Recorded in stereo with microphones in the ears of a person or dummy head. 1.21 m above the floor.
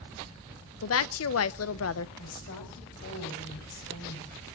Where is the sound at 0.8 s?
75° left (ahead or behind), 0.8 m.